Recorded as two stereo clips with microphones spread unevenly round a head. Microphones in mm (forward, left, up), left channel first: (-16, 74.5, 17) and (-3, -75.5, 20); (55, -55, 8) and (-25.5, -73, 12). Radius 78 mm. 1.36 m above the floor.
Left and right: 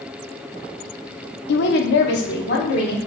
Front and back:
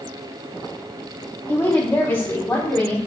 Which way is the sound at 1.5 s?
90° left.